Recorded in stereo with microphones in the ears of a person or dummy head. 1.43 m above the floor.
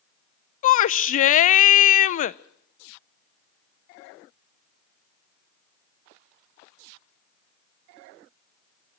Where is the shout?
45° left (ahead or behind), 0.6 m.